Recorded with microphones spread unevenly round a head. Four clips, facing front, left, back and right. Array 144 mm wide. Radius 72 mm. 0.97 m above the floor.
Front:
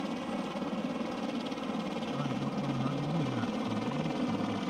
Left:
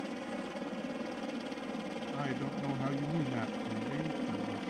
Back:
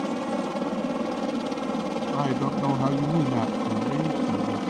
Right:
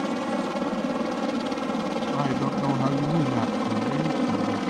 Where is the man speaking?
150° right.